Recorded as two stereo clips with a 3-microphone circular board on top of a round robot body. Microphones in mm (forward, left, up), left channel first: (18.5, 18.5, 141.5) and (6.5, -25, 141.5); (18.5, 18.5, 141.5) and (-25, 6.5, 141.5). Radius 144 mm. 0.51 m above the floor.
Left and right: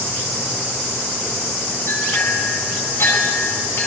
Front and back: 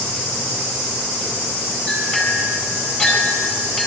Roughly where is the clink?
Left.